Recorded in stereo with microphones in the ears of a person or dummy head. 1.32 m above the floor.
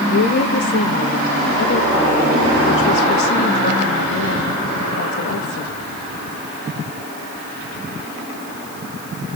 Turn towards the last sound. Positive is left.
turn(degrees=60)  # may be behind; listen again after turning